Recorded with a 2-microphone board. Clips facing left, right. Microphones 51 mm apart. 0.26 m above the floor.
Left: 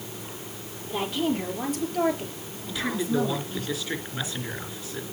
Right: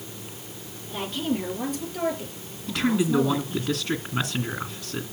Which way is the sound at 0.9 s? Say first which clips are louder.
Left 2 dB; 5° left (ahead or behind).